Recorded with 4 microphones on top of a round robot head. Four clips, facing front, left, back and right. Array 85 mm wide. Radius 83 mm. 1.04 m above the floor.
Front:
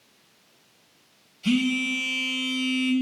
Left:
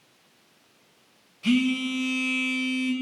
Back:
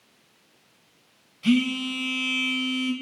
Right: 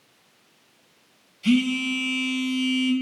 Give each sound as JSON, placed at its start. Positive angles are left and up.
{"t": 1.4, "sound": "a phone buzzing", "azimuth_deg": 140, "distance_m": 0.9}